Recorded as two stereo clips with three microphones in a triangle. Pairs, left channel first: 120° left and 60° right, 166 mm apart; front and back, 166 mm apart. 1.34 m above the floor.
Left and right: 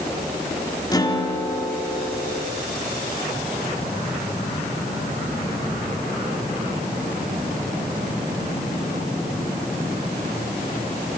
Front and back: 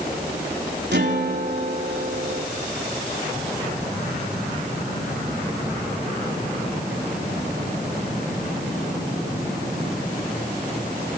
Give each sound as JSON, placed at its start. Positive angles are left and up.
{"t": 0.9, "sound": "a guitar", "azimuth_deg": -175, "distance_m": 3.0}